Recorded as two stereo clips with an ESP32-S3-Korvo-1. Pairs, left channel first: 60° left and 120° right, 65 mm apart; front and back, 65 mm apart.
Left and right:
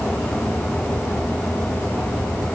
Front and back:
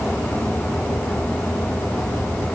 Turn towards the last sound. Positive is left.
No sound to turn to.